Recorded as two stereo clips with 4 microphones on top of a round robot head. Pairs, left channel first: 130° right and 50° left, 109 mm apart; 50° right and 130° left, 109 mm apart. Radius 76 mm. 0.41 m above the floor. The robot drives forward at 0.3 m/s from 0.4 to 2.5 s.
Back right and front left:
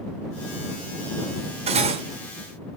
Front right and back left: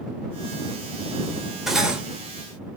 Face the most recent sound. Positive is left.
turn(degrees=65)